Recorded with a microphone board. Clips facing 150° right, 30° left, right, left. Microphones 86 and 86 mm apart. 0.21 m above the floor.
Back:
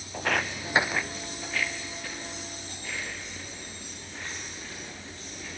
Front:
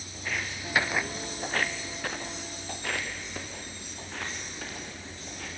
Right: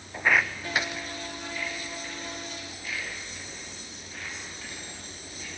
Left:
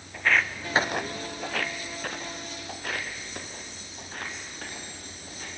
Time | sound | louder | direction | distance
0.1 | footsteps | back 7 dB, right 1 dB | 160° right | 1.0 m